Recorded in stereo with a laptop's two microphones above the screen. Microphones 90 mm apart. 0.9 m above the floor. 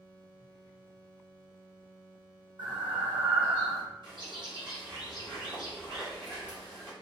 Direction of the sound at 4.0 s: 60° right (ahead or behind).